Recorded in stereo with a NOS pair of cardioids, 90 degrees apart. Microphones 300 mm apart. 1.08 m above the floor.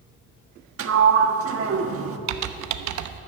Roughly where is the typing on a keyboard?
Right.